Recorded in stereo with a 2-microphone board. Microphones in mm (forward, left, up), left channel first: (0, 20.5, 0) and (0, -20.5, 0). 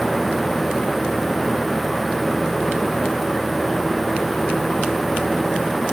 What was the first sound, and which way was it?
Only background noise.